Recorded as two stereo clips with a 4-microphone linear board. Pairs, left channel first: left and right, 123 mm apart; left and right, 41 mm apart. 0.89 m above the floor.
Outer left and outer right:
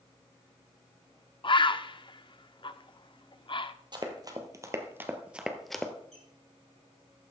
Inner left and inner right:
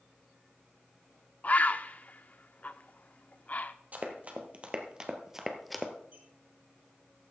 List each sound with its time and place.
1.4 s a bird: 45° left (ahead or behind), 0.5 m
3.9 s running footsteps: 40° right (ahead or behind), 1.5 m; by 5.9 s 10° left (ahead or behind), 1.1 m
6.1 s a squeak: 60° right (ahead or behind), 4 m